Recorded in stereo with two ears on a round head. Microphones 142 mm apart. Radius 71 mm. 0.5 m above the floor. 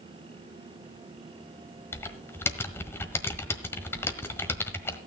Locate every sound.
1.9 s typing on a keyboard: 15° left (ahead or behind), 1.3 m